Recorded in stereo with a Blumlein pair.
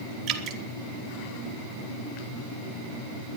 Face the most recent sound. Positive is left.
turn(degrees=-30)